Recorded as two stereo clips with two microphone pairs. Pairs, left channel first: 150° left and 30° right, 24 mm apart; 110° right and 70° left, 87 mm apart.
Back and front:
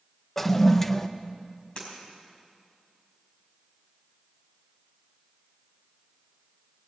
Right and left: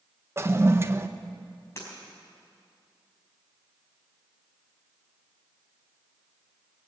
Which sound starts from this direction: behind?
Breaking glass, at 1.8 s.